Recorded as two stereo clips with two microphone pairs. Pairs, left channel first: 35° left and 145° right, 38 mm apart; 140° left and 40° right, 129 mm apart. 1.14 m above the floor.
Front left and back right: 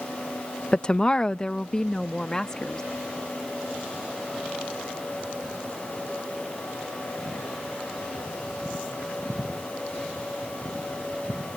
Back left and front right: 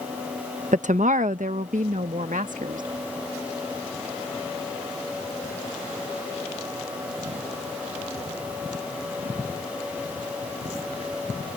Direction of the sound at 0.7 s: 35° right.